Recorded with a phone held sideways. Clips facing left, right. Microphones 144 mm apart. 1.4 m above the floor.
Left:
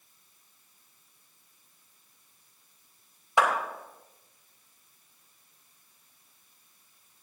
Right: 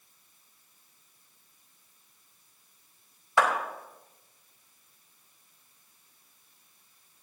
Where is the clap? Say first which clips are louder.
Even; 20° left (ahead or behind), 5 m.